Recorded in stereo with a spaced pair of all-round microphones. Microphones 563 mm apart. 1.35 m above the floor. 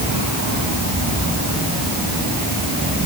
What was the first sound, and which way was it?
Only background noise.